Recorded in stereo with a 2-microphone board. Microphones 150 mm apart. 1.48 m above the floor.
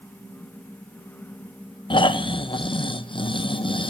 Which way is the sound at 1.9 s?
35° left (ahead or behind).